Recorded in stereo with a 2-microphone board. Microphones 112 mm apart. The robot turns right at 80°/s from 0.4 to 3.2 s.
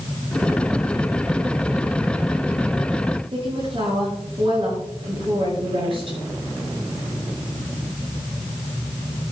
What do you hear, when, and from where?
3.3 s a woman speaking: 55° right (ahead or behind), 6 m